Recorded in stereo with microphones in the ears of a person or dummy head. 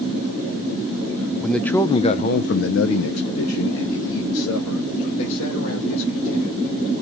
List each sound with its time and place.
1.4 s a man speaking: 5° right (ahead or behind), 0.6 m; by 6.7 s 75° left (ahead or behind), 2.5 m